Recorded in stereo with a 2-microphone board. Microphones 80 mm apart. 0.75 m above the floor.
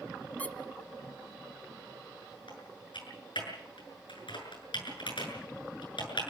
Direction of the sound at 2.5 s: 90° left.